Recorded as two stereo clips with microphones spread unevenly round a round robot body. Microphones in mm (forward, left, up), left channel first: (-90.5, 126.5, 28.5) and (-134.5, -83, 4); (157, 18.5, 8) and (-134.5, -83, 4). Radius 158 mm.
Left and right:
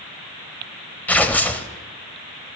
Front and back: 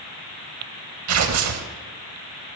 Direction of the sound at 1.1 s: 165° left.